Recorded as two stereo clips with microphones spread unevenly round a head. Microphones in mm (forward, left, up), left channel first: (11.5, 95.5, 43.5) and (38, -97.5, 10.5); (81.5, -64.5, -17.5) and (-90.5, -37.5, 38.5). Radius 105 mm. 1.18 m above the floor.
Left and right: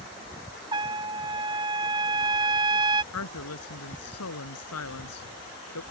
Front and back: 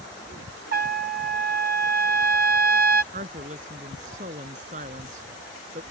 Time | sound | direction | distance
0.7 | a trumpet | 150° right | ?
3.1 | a woman speaking | 115° left | ?